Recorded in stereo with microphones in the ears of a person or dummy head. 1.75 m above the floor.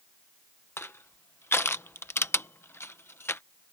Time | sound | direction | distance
0.8 | crushing | 10° left (ahead or behind) | ?